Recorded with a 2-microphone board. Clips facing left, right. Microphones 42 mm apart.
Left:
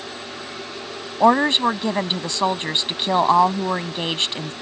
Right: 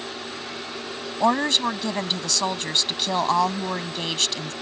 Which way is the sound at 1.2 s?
20° left (ahead or behind).